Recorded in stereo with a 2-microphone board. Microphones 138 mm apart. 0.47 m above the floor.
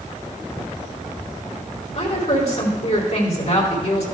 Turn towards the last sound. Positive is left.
turn(degrees=50)  # may be behind; listen again after turning